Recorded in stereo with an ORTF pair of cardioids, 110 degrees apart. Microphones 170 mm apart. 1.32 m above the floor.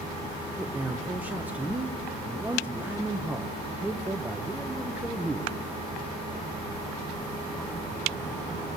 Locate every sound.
0.6 s a man speaking: 10° right, 1.0 m